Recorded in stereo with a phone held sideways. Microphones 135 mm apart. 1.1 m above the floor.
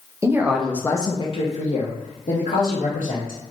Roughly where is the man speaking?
Right.